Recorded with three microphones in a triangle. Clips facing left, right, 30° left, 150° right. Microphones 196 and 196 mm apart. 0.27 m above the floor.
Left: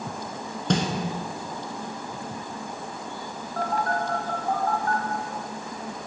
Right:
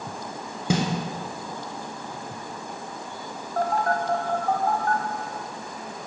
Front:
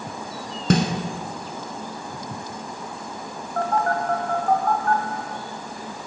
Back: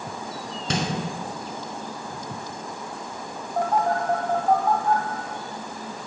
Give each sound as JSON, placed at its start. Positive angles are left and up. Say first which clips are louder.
{"t": 0.7, "sound": "a snare drum", "louder": "even, front 7 dB", "azimuth_deg": -10, "distance_m": 0.9}
{"t": 3.6, "sound": "a phone buzzing", "louder": "right 3 dB, even", "azimuth_deg": -80, "distance_m": 0.8}